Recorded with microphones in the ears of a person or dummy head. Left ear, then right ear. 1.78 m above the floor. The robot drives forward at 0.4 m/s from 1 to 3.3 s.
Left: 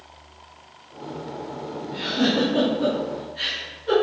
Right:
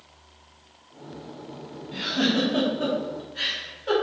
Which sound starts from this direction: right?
A giggle, at 1.9 s.